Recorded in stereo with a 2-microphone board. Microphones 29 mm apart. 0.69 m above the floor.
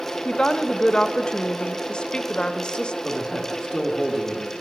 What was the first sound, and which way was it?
A woman speaking, 30° left (ahead or behind).